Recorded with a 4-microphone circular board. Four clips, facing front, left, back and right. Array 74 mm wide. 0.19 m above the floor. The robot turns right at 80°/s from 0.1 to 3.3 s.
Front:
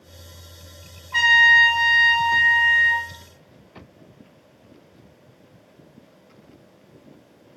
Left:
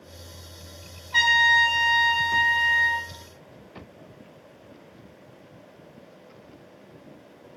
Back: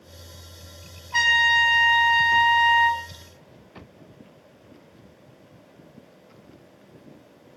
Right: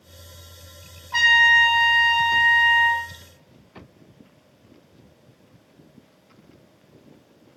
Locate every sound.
1.1 s a trumpet: 75° right, 1.3 m; by 3.0 s 80° left, 1.3 m